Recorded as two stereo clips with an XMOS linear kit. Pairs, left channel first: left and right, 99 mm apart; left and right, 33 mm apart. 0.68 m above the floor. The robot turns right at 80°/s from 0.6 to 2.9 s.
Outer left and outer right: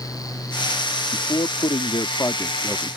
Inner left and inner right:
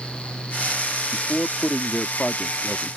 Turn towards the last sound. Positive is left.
turn(degrees=-170)